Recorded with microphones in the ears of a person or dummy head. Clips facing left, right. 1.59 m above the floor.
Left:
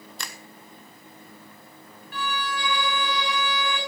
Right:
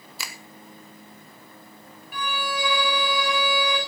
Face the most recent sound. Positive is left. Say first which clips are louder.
# right 1 dB
turn(degrees=-10)  # may be behind; listen again after turning